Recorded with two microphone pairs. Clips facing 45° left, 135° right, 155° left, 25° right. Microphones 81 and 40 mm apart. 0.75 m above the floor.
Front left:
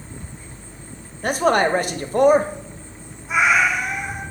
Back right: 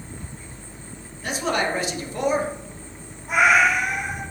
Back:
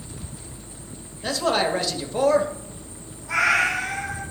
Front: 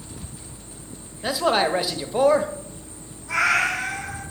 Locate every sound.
1.2 s a man speaking: 50° left, 0.7 m
3.3 s a cat meowing: 120° right, 1.4 m